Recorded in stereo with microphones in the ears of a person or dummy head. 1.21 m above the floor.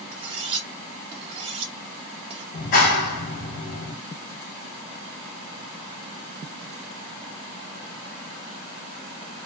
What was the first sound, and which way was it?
Cutlery clinking, 30° right (ahead or behind).